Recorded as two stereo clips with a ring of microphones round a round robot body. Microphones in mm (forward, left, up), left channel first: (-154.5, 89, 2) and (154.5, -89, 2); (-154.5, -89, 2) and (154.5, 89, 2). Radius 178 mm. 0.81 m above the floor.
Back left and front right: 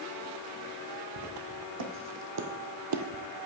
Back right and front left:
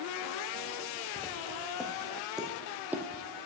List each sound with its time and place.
1.2 s footsteps: 60° right, 2.5 m; by 3.5 s 45° right, 0.9 m